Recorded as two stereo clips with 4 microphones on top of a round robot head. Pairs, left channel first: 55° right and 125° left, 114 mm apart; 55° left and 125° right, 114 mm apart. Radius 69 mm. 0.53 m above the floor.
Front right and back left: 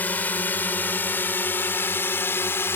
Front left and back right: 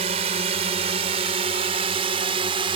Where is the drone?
130° right; by 2.8 s 115° right.